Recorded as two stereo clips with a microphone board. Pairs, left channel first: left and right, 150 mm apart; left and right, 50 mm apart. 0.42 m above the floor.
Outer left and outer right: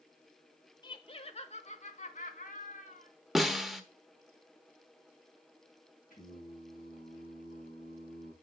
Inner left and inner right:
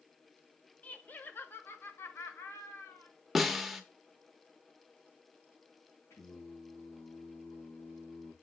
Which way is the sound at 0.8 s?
30° left (ahead or behind).